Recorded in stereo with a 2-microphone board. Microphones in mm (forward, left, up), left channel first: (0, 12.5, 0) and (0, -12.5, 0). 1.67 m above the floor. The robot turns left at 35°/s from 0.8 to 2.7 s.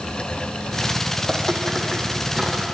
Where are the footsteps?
25° left (ahead or behind), 4 m; by 2.6 s 25° right (ahead or behind), 5.5 m.